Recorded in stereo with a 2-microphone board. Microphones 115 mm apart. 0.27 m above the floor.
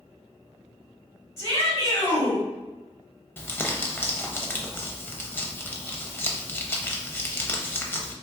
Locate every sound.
1.4 s a shout: 25° left (ahead or behind), 1.1 m
3.4 s crumpling: 15° left (ahead or behind), 0.5 m